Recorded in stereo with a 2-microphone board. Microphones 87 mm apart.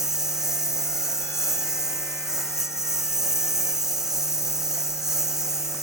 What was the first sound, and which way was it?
A lawn mower, 5° right (ahead or behind).